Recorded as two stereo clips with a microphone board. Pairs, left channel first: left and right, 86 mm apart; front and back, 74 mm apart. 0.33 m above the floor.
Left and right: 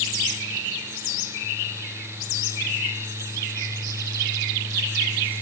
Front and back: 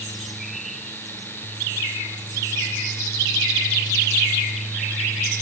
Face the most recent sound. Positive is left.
No sound to turn to.